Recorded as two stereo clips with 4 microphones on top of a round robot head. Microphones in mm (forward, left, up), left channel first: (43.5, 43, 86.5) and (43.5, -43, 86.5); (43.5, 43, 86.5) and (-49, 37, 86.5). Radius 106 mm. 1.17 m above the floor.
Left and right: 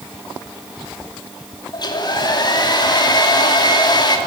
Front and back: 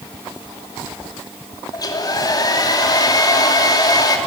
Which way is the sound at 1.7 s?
50° left.